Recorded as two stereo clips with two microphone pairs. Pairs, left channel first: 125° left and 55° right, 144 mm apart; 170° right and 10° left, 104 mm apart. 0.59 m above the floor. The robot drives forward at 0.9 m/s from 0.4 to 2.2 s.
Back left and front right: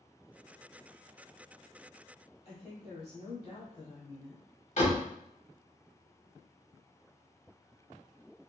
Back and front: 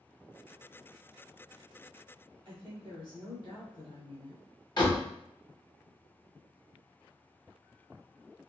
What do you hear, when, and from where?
2.5 s a woman speaking: 155° left, 1.5 m
4.8 s a door slam: 150° left, 1.2 m